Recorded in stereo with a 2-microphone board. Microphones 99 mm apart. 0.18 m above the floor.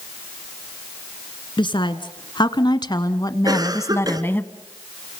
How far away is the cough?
About 2.5 m.